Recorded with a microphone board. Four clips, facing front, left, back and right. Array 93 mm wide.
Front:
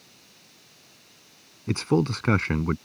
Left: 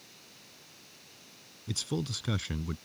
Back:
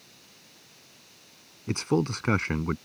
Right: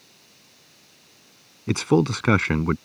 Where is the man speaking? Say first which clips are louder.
Right 16 dB, front 3 dB; 85° right.